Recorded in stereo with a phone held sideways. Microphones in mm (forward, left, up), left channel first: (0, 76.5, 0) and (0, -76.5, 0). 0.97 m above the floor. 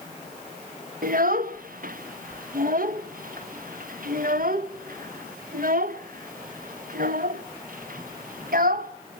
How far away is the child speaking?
About 0.6 m.